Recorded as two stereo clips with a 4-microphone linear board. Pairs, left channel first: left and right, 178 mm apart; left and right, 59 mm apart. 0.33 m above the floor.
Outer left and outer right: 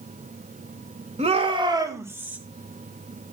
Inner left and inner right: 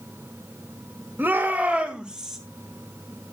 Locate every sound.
1.2 s a shout: 35° right (ahead or behind), 1.4 m; by 2.4 s 5° right (ahead or behind), 1.9 m